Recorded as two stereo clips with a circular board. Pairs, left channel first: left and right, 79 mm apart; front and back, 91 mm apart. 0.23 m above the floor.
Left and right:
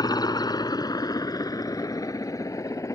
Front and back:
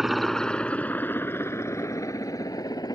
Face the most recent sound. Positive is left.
turn(degrees=45)